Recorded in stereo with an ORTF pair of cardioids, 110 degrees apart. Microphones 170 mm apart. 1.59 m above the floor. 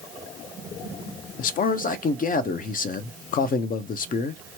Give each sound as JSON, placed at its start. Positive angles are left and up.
{"t": 1.4, "sound": "a man speaking", "azimuth_deg": 55, "distance_m": 0.6}